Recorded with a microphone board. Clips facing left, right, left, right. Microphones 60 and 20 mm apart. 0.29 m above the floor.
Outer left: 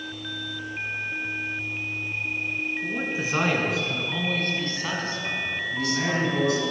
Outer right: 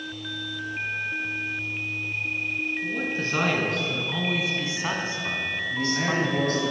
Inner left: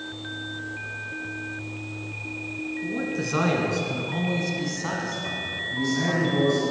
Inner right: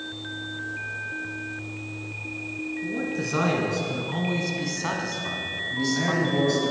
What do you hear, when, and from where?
2.8 s a man speaking: 20° left (ahead or behind), 2.5 m; by 6.7 s 50° right (ahead or behind), 2 m
5.7 s a man speaking: 10° right (ahead or behind), 5 m